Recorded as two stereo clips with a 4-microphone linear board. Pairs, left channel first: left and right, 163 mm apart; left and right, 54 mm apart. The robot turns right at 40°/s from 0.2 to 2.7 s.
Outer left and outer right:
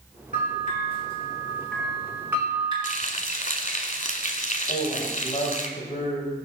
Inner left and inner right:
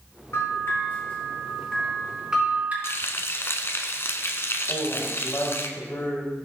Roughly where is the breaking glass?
I don't hear breaking glass.